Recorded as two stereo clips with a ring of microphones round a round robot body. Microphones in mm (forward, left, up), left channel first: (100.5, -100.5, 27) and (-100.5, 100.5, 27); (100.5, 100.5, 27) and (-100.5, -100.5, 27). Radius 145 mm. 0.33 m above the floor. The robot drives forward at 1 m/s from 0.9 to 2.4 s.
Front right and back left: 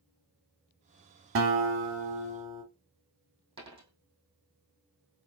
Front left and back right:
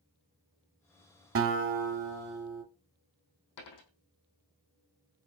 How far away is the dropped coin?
About 3.5 m.